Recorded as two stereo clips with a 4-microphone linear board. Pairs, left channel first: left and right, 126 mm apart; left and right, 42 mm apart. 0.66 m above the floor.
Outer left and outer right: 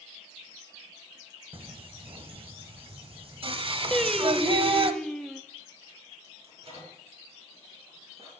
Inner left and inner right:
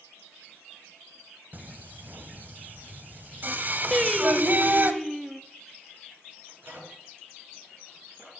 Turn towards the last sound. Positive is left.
turn(degrees=-55)  # may be behind; listen again after turning